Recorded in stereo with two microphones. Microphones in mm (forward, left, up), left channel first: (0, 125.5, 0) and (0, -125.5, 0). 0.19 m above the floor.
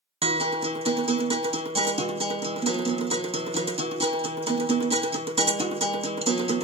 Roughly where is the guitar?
Right.